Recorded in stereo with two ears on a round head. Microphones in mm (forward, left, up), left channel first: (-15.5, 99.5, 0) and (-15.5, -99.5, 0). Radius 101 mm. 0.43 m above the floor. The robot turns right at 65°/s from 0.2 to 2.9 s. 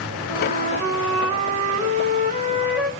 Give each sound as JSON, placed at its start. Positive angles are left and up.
{"t": 0.3, "sound": "a flute", "azimuth_deg": -170, "distance_m": 0.8}